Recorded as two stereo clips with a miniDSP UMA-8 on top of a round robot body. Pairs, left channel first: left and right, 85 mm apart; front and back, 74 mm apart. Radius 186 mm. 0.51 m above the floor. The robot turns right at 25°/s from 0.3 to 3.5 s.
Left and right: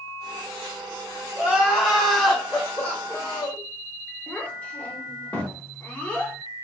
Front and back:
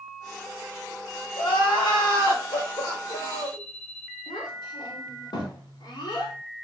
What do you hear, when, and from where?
1.4 s crying: 20° right, 1.9 m; by 3.6 s 35° left, 1.9 m
4.3 s a child speaking: 15° left, 1.0 m